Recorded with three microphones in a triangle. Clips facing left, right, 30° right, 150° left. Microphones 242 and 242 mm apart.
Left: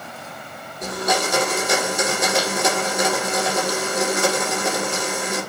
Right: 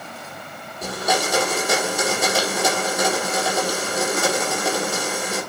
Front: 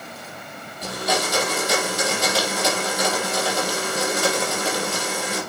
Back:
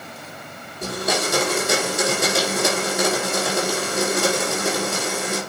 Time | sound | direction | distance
0.8 | a blender | 170° right | 4 m